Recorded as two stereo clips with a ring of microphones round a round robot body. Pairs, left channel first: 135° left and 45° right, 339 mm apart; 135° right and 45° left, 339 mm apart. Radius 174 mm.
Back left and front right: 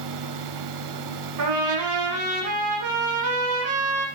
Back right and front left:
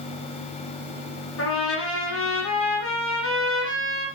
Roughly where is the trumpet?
Right.